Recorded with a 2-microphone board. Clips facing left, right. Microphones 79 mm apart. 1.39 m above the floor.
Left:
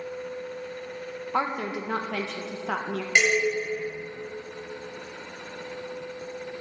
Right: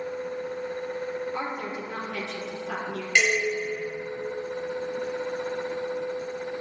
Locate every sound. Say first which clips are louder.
1.3 s a woman speaking: left 4 dB; 75° left (ahead or behind), 1.8 m
3.1 s dishes clattering: left 1 dB; 20° left (ahead or behind), 5 m